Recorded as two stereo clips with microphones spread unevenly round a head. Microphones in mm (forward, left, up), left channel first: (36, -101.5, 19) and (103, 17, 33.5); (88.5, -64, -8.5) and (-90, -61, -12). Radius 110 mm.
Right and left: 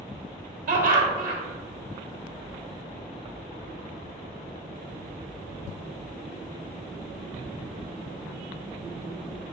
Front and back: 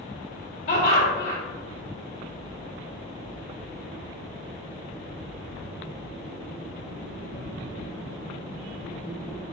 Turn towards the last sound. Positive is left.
turn(degrees=55)